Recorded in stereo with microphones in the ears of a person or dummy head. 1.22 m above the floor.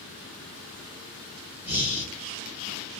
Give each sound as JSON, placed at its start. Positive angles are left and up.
{"t": 1.6, "sound": "breathing", "side_deg": -5, "distance_m": 0.8}